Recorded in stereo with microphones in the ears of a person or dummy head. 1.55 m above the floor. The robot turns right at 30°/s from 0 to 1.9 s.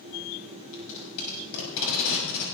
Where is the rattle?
No rattle in this recording.